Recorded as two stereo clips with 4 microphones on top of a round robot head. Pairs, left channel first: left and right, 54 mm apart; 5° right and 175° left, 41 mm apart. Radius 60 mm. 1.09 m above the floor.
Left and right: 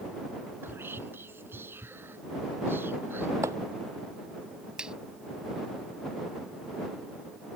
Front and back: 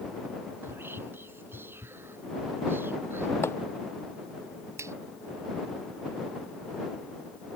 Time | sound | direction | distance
0.6 | whispering | 140° right | ?
3.4 | chopping | 45° right | ?
4.8 | a finger snap | 165° right | ?